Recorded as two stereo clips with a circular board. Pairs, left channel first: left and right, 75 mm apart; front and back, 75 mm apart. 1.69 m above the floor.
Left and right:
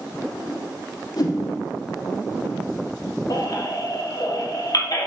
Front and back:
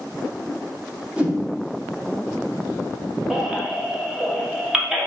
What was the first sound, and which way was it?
A whoosh, 110° left.